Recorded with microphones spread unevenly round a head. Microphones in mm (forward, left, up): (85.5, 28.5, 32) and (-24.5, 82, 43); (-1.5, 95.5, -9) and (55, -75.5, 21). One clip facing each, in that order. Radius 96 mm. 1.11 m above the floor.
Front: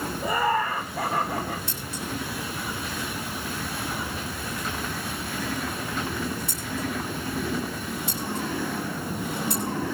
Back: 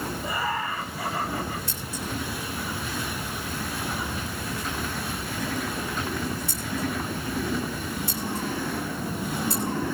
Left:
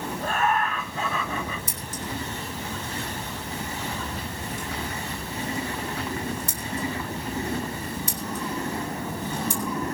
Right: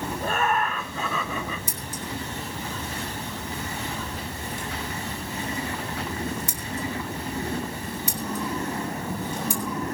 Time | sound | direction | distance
0.2 | laughter | 85° right | 4 m
1.7 | scissors | 100° right | 5.5 m